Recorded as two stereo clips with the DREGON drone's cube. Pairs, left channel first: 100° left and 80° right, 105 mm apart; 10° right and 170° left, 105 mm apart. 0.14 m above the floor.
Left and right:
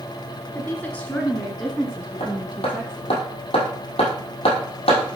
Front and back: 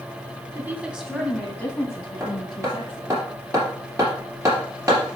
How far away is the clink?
No clink in this recording.